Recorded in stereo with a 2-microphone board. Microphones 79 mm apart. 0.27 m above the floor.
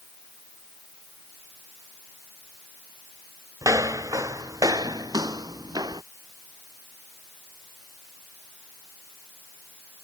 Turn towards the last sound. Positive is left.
turn(degrees=-55)  # may be behind; listen again after turning